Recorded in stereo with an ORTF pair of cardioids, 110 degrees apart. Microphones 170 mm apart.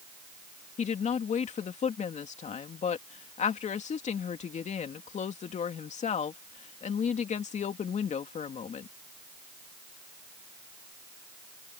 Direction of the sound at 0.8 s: 45° left.